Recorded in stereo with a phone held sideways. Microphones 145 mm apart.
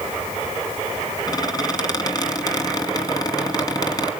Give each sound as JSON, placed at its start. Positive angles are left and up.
{"t": 1.3, "sound": "a squeak", "side_deg": 30, "distance_m": 2.5}